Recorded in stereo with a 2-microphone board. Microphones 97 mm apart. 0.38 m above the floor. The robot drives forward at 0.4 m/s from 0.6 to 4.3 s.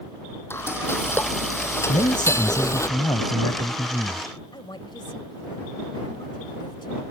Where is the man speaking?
50° left (ahead or behind); by 4.3 s 35° left (ahead or behind).